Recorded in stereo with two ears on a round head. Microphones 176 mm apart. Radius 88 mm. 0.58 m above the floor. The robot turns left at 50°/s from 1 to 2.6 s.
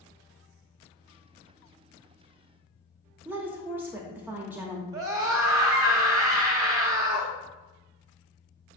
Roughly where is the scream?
Centre.